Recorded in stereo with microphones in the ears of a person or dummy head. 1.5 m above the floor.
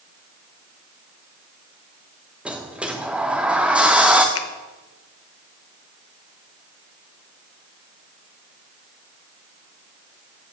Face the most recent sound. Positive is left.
turn(degrees=85)